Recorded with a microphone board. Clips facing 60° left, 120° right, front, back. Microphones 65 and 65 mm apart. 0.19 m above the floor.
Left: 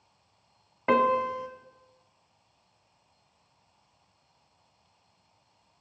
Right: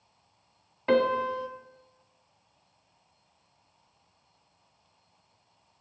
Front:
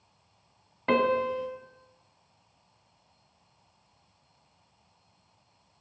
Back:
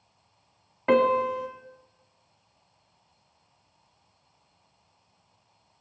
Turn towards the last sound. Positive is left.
turn(degrees=110)